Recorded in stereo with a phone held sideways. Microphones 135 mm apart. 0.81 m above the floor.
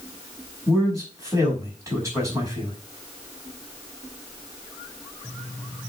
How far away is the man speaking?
About 5 m.